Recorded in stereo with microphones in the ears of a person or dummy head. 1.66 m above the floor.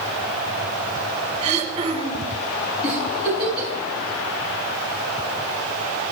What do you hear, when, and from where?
1.4 s throat clearing: 35° right (ahead or behind), 1.7 m
2.8 s a giggle: 30° left (ahead or behind), 7 m